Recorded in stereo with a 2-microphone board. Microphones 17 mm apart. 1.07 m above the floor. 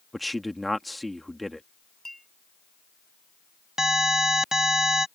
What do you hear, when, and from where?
0.1 s a man speaking: 5° left (ahead or behind)
2.0 s a clink: 25° left (ahead or behind)
3.8 s an alarm: 35° right (ahead or behind)